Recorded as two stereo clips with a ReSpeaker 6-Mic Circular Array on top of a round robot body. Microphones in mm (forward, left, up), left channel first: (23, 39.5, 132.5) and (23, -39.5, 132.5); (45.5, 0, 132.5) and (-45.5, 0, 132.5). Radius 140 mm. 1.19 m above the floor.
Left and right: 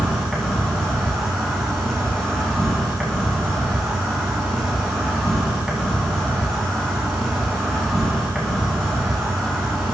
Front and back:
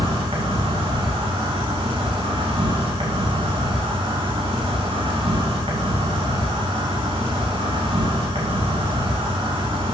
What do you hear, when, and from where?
0.0 s an insect: 175° left, 3 m